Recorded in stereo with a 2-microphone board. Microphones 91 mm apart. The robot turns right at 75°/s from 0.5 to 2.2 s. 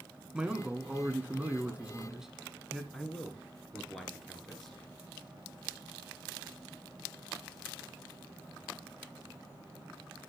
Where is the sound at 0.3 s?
10° right (ahead or behind), 1.1 m; by 2.8 s 5° right (ahead or behind), 1.1 m.